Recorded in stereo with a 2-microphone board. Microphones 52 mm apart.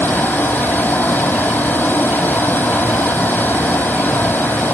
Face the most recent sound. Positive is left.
turn(degrees=40)  # may be behind; listen again after turning